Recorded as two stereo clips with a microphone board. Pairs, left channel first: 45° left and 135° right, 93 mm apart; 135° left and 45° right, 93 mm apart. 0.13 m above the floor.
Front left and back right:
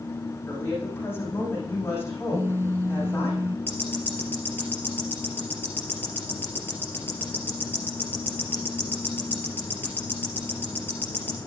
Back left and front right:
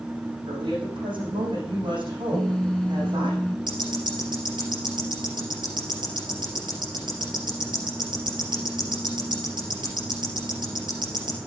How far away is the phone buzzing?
About 0.6 m.